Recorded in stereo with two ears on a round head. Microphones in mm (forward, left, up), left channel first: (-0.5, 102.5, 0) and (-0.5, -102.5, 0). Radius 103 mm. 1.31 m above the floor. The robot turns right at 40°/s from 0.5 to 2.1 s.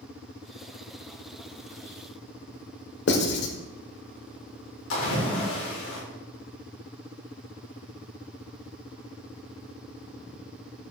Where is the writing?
55° left (ahead or behind), 1.4 m.